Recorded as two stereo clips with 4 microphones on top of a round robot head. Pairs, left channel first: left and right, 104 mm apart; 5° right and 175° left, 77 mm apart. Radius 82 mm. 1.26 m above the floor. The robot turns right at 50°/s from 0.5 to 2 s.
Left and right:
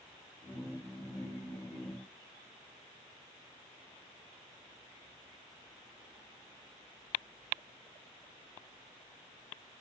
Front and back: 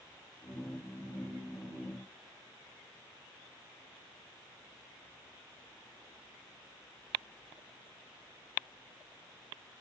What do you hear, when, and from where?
Only background noise.